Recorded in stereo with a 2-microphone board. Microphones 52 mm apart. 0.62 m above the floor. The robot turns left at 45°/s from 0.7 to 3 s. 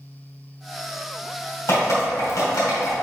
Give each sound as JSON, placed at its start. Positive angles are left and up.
{"t": 1.7, "sound": "dripping", "side_deg": 60, "distance_m": 2.5}